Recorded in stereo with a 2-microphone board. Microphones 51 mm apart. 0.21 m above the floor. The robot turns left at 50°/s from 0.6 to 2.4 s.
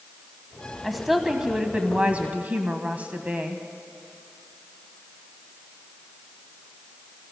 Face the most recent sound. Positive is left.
turn(degrees=-30)  # may be behind; listen again after turning